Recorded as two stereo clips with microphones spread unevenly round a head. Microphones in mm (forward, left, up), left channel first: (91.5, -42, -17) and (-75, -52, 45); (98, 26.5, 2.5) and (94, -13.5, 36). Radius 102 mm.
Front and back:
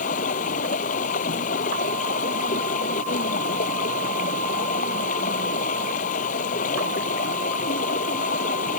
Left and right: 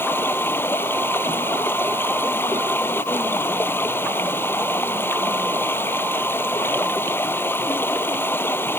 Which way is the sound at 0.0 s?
55° left.